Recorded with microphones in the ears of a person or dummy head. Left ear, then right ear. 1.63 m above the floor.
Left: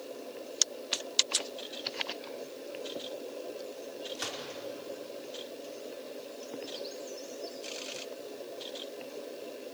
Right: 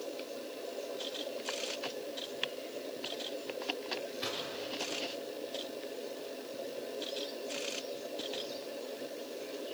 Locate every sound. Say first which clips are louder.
4.2 s a gunshot: left 2 dB; 60° left (ahead or behind), 4.5 m